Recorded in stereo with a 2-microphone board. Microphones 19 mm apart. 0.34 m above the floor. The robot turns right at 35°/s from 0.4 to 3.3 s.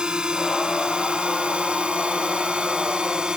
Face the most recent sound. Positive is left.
turn(degrees=-50)  # may be behind; listen again after turning